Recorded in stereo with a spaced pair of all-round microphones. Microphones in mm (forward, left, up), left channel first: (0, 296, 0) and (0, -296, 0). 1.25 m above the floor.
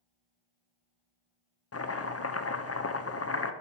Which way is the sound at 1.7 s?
25° left (ahead or behind).